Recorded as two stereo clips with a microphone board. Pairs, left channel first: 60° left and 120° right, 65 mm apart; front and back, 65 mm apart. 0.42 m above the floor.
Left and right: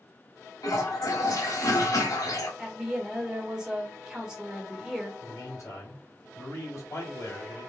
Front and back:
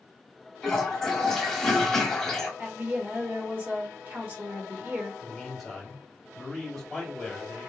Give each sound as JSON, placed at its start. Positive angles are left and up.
{"t": 0.6, "sound": "a toilet flushing", "azimuth_deg": 85, "distance_m": 1.4}
{"t": 2.6, "sound": "a woman speaking", "azimuth_deg": 170, "distance_m": 1.4}
{"t": 5.2, "sound": "a man speaking", "azimuth_deg": 90, "distance_m": 3.0}